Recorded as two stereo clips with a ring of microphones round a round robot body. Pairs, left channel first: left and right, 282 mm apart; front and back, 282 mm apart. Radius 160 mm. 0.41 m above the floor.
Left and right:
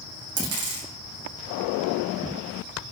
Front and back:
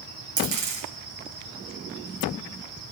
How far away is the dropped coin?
About 6 m.